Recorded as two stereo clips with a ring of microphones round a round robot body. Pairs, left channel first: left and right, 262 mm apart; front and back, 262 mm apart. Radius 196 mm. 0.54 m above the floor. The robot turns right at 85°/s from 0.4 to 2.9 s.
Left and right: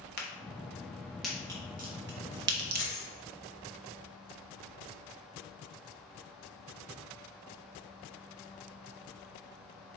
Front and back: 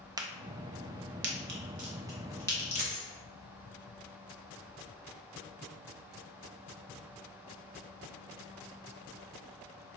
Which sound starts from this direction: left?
A crack, at 0.2 s.